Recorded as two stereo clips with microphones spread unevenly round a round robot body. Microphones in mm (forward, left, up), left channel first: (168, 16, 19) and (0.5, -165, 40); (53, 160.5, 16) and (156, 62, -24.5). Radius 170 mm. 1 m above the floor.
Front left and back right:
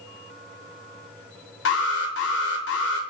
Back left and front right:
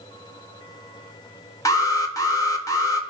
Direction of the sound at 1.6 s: 60° left.